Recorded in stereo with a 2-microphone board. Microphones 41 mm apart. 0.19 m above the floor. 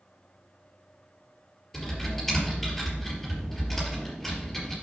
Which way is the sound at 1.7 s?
10° left (ahead or behind).